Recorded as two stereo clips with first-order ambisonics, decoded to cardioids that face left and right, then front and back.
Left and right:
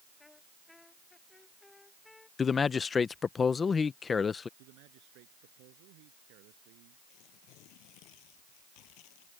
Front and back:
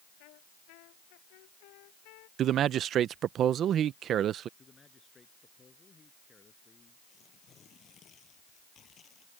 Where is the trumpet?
10° left.